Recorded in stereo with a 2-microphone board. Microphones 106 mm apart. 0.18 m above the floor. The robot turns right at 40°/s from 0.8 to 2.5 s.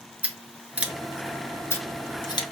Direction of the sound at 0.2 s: 15° right (ahead or behind).